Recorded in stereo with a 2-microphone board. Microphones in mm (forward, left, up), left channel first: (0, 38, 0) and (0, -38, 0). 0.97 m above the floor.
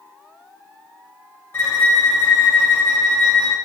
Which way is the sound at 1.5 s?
30° left (ahead or behind).